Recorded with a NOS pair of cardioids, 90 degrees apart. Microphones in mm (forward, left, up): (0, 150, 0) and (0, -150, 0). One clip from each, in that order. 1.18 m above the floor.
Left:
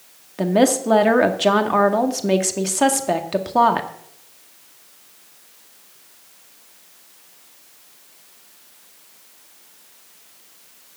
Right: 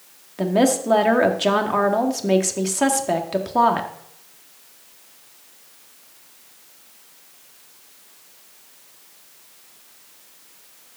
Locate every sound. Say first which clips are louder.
0.4 s a woman speaking: left 2 dB; 15° left, 1.9 m